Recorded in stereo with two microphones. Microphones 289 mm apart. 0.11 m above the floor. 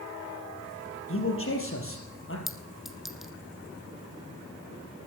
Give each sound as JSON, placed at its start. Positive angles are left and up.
{"t": 1.1, "sound": "a man speaking", "side_deg": 45, "distance_m": 3.5}
{"t": 2.5, "sound": "a clink", "side_deg": 0, "distance_m": 1.0}